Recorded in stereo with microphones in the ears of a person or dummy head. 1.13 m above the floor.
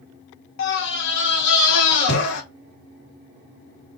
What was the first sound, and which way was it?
A scream, 70° left (ahead or behind).